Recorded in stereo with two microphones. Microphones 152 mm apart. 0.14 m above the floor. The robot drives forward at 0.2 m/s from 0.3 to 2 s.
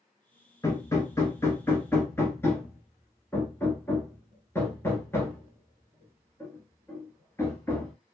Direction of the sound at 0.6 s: 20° left (ahead or behind).